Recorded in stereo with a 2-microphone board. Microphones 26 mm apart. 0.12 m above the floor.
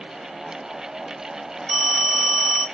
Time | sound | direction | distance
1.7 | a phone ringing | 20° left (ahead or behind) | 1.0 m